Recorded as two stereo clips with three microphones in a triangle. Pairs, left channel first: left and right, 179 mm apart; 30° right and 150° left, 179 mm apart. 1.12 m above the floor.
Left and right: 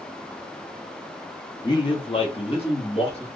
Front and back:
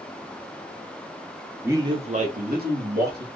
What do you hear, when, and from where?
1.6 s a man speaking: 85° left, 0.7 m; by 3.3 s 145° left, 1.7 m